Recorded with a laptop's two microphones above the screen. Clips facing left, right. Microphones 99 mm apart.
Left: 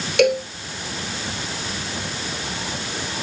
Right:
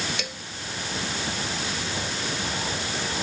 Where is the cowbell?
60° left (ahead or behind).